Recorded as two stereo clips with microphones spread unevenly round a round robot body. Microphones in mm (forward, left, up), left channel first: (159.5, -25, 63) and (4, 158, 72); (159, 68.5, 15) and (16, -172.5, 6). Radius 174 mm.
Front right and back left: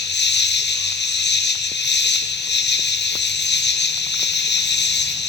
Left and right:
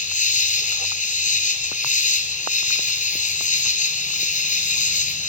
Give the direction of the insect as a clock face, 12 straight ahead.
12 o'clock.